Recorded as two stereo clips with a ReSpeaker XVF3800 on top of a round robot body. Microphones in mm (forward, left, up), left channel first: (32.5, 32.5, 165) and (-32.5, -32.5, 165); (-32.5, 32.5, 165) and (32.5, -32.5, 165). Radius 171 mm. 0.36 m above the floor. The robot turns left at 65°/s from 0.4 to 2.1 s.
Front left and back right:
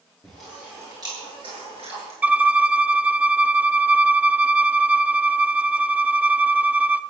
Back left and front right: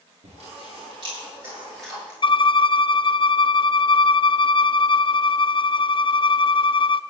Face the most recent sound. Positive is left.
turn(degrees=150)